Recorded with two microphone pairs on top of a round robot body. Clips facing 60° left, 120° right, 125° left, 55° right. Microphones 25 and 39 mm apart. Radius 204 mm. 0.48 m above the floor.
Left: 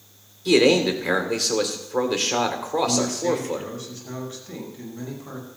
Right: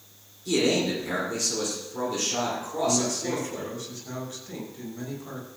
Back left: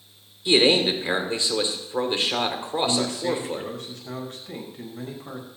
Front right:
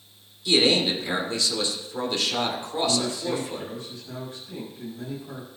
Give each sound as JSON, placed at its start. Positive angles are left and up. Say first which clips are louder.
{"t": 0.5, "sound": "a man speaking", "louder": "left 7 dB, back left 2 dB", "azimuth_deg": 70, "distance_m": 3.0}
{"t": 2.8, "sound": "a man speaking", "louder": "left 2 dB, back left 1 dB", "azimuth_deg": 135, "distance_m": 5.0}